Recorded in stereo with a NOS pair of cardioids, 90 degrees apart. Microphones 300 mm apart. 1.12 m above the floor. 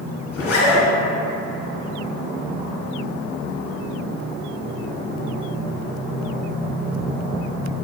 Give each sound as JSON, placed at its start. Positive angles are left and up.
{"t": 0.3, "sound": "a zipper", "azimuth_deg": 50, "distance_m": 1.4}